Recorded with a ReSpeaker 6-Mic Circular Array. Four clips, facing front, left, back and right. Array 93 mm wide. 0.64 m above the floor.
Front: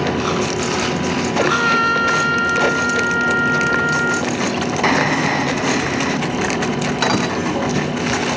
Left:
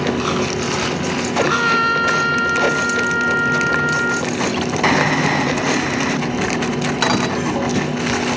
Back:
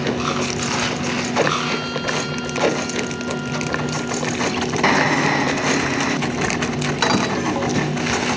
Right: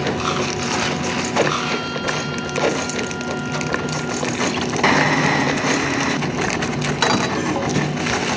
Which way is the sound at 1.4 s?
45° left.